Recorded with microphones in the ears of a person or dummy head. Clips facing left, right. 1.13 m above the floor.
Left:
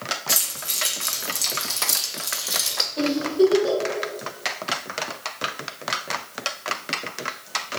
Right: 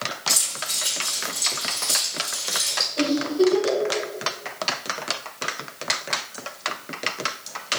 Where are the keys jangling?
20° left (ahead or behind), 1.1 m; by 2.9 s 75° left (ahead or behind), 1.3 m.